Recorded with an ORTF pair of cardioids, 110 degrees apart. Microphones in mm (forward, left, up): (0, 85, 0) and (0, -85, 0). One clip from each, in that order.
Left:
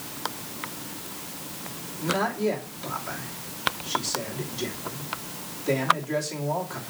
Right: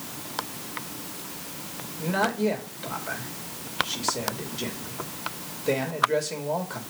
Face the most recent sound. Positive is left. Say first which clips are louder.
# even
turn(degrees=-15)